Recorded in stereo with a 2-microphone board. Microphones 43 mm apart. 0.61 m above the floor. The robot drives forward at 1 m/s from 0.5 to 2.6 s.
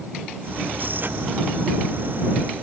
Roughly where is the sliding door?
No sliding door in this recording.